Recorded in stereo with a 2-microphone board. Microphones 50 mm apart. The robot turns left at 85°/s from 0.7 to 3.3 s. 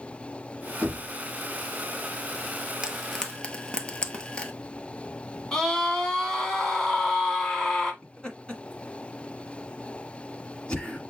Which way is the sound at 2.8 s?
15° right (ahead or behind).